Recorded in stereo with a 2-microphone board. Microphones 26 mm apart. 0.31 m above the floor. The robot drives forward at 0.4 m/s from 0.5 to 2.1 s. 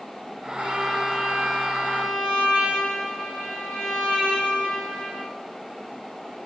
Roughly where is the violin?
Right.